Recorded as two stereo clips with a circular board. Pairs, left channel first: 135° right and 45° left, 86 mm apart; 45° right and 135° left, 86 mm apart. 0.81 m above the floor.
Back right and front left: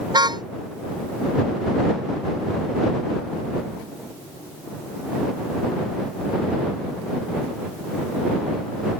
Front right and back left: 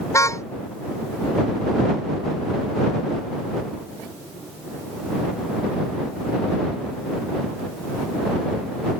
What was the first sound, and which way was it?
A car horn, 10° left.